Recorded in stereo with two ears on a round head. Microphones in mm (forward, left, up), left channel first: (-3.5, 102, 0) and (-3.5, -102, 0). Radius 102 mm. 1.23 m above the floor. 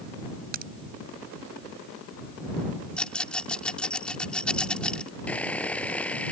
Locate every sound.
0.5 s a crack: 40° right (ahead or behind)
3.0 s a rattle: 5° left (ahead or behind)
5.3 s sawing: 5° left (ahead or behind)